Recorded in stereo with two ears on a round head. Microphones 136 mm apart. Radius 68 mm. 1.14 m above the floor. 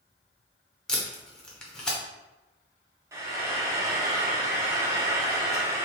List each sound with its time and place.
0.9 s tape being pulled: 5° left (ahead or behind), 0.7 m
3.1 s frying: 20° right (ahead or behind), 0.6 m